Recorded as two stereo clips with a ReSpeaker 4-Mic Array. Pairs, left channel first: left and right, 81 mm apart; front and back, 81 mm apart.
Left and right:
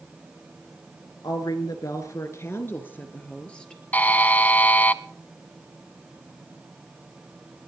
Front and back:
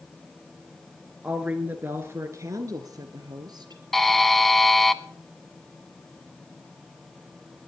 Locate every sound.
1.2 s a woman speaking: 105° left, 2 m; by 3.8 s 170° left, 2.5 m
3.9 s a buzzer: 80° left, 0.7 m